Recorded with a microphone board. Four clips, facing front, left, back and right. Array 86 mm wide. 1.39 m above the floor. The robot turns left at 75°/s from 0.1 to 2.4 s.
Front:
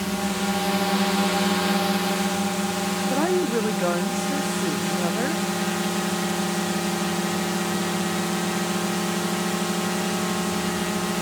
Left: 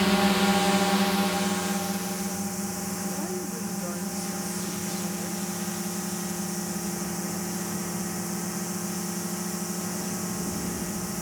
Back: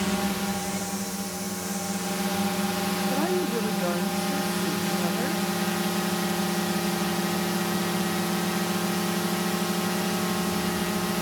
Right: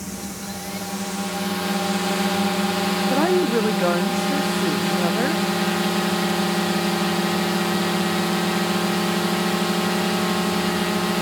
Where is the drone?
95° left; by 11.2 s 80° right.